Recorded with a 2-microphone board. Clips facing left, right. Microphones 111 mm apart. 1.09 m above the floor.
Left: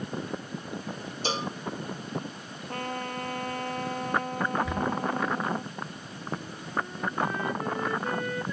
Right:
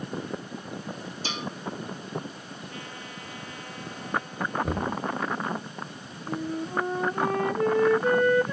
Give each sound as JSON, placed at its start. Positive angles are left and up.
{"t": 1.2, "sound": "a cowbell", "side_deg": 35}
{"t": 2.7, "sound": "a trumpet", "side_deg": 55}
{"t": 4.6, "sound": "knocking", "side_deg": -50}
{"t": 6.3, "sound": "a flute", "side_deg": -85}